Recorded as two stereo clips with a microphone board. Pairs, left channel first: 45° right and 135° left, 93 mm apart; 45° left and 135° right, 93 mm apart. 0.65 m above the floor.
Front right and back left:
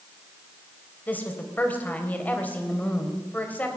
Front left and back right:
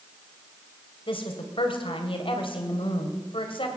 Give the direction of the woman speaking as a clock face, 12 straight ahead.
11 o'clock.